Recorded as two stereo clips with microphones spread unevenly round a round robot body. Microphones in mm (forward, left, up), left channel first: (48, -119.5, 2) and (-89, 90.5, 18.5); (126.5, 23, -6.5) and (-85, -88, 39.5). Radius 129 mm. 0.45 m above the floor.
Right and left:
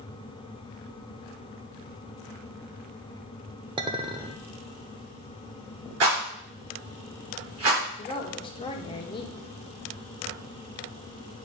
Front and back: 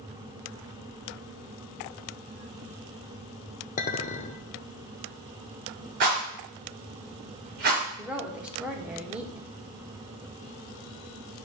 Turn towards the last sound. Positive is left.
turn(degrees=-45)